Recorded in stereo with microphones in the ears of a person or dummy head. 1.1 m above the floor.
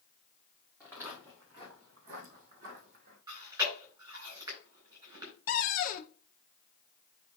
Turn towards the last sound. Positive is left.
turn(degrees=50)  # may be behind; listen again after turning